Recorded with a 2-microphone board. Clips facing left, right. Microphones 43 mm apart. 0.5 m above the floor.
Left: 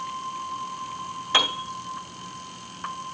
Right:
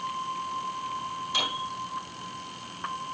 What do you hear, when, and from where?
1.3 s a piano: 60° left (ahead or behind), 2.5 m